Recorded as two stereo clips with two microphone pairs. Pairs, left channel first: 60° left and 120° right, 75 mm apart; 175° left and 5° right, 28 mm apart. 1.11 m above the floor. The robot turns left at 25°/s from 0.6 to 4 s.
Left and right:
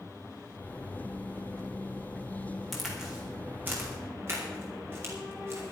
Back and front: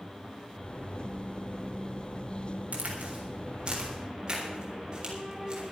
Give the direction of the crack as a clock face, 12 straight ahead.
1 o'clock.